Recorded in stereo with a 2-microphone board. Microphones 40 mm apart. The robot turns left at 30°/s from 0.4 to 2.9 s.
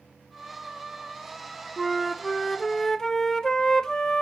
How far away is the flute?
About 0.6 m.